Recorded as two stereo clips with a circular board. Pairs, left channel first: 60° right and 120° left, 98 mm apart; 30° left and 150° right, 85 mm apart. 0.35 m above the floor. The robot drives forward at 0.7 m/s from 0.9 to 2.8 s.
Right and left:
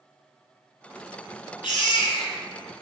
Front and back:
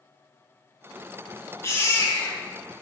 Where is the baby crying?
30° right, 3 m; by 2.8 s 35° right, 2.5 m.